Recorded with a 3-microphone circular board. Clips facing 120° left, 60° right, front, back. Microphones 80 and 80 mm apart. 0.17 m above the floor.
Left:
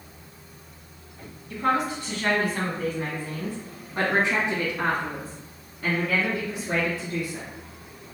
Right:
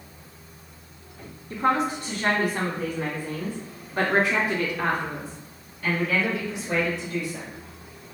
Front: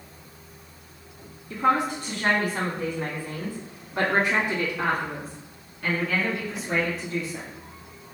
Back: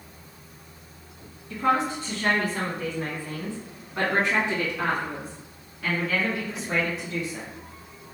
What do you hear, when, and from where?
1.5 s a woman speaking: 40° right, 1.7 m; by 7.5 s 90° left, 3 m